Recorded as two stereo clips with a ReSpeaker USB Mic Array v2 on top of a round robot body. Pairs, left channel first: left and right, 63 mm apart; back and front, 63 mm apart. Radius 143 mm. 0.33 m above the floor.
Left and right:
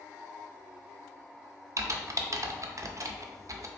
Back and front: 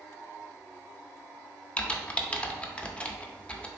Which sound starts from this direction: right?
Typing on a keyboard, at 1.8 s.